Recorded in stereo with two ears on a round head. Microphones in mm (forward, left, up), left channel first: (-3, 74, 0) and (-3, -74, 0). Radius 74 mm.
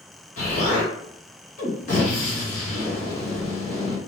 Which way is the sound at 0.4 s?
50° left (ahead or behind).